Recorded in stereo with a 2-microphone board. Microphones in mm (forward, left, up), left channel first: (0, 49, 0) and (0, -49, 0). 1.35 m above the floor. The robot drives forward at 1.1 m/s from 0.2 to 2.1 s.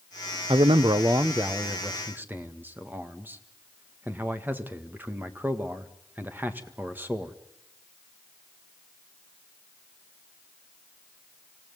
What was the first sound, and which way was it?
A man speaking, 60° right (ahead or behind).